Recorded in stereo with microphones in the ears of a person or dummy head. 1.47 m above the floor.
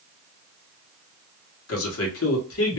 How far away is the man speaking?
About 1.5 m.